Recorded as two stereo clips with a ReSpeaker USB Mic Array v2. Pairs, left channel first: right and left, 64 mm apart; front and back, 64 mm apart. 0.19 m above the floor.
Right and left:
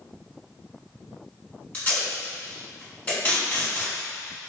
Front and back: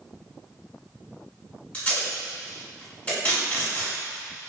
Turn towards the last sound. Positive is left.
turn(degrees=-40)